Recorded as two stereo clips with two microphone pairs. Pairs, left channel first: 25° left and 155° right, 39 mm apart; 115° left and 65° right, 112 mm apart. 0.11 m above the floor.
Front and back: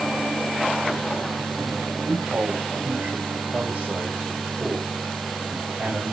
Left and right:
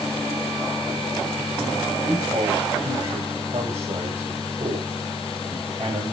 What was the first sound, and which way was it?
A man speaking, 95° right.